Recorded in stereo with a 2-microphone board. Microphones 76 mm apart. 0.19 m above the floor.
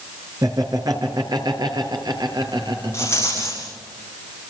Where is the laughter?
55° right (ahead or behind), 3.5 m; by 3.7 s 75° right (ahead or behind), 6 m.